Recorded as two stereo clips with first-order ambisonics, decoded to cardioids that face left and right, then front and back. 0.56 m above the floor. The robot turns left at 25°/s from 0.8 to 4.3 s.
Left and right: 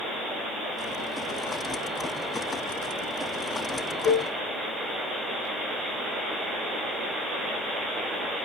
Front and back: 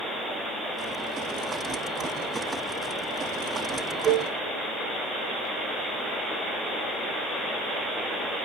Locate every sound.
4.0 s a cowbell: 115° left, 2 m; by 4.3 s 110° left, 2 m